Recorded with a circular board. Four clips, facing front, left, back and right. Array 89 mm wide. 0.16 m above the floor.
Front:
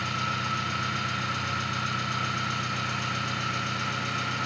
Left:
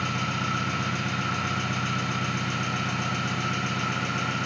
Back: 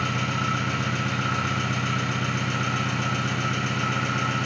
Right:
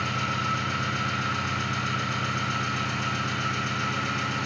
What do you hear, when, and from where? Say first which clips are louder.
0.0 s an engine running: right 1 dB, back 4 dB; 150° left, 2.5 m